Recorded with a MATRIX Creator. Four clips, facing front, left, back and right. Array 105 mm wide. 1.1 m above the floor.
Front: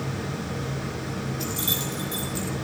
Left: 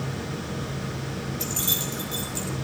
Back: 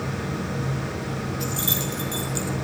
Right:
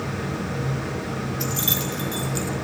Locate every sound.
1.4 s keys jangling: 90° right, 3 m; by 2.5 s 110° right, 2.5 m